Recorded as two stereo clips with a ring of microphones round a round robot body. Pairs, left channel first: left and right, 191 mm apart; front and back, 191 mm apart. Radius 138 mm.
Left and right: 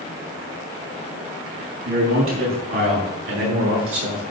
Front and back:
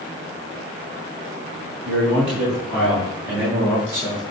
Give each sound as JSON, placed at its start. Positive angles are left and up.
{"t": 1.9, "sound": "a man speaking", "azimuth_deg": -90, "distance_m": 4.5}